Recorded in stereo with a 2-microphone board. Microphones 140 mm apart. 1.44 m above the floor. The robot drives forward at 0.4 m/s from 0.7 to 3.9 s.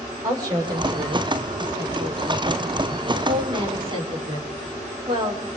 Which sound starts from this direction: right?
A woman speaking, at 0.2 s.